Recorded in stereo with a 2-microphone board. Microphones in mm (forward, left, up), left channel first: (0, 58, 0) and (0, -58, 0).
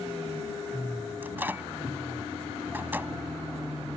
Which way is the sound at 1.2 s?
20° right (ahead or behind).